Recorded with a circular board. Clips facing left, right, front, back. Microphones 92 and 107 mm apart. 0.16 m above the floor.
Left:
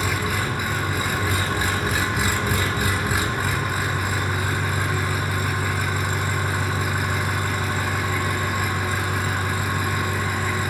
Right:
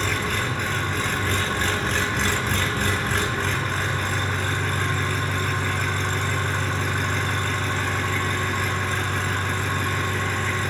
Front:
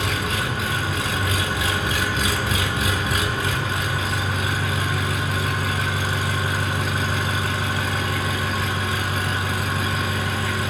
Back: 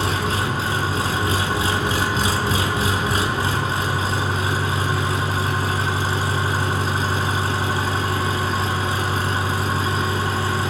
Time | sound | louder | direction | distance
0.0 | an engine running | left 1 dB, back 3 dB | 165° left | 0.7 m